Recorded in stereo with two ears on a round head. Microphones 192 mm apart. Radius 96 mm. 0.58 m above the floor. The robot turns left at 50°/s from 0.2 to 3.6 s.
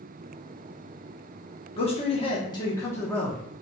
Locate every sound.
1.8 s a man speaking: 30° left (ahead or behind), 0.8 m; by 3.4 s centre (ahead or behind), 0.8 m